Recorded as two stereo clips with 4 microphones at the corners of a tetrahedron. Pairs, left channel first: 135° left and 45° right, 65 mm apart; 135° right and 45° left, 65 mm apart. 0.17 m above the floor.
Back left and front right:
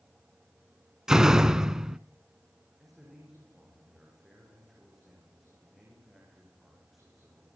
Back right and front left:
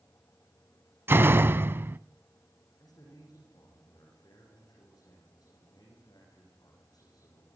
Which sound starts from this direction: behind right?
A man speaking, at 2.8 s.